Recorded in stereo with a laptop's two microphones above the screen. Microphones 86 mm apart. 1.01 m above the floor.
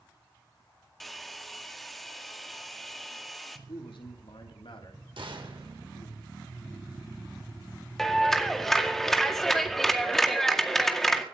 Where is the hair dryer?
Centre (ahead or behind), 1.7 m.